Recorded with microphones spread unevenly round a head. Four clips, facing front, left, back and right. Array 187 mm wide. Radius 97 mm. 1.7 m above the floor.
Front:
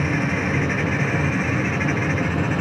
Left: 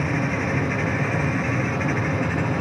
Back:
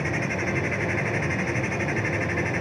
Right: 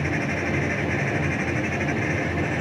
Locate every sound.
0.0 s a fan: 30° left, 2.5 m